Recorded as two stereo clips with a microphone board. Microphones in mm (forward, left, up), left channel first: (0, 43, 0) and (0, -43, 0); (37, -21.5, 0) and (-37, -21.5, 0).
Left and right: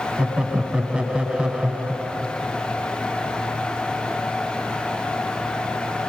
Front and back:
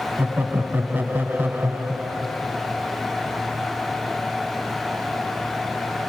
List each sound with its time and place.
0.2 s laughter: 155° right, 1.2 m